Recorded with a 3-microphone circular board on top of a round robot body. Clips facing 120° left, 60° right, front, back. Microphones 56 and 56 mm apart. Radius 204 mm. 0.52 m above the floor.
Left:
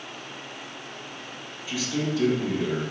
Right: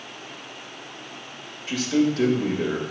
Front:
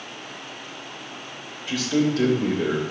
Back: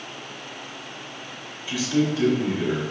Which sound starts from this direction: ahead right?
A man speaking, at 1.7 s.